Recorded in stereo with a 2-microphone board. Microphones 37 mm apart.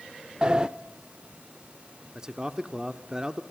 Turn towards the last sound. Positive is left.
turn(degrees=-20)  # may be behind; listen again after turning